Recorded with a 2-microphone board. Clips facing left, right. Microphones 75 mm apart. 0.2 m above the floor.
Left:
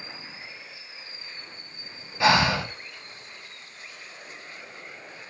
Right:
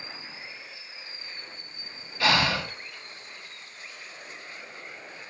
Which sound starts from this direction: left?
Breathing, at 2.2 s.